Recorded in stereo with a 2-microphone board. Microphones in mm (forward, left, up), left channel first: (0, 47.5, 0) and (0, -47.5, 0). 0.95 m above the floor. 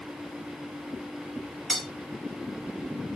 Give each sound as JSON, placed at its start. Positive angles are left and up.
{"t": 1.7, "sound": "cutlery clinking", "side_deg": 5, "distance_m": 2.0}